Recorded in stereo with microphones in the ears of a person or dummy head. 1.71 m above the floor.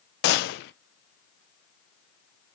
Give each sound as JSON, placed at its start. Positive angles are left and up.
{"t": 0.2, "sound": "a gunshot", "side_deg": 65, "distance_m": 0.5}